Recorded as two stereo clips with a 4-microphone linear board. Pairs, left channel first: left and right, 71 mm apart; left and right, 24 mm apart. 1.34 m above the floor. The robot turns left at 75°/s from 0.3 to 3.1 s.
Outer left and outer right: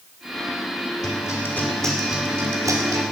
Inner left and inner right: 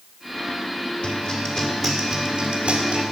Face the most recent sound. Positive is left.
turn(degrees=-85)